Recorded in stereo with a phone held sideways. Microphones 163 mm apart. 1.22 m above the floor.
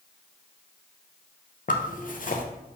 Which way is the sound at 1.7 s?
55° left (ahead or behind).